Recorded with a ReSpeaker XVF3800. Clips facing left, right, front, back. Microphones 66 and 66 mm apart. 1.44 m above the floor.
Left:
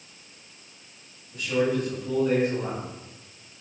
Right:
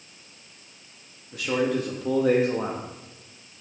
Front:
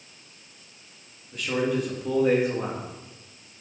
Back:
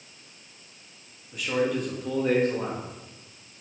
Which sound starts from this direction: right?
A man speaking, at 1.3 s.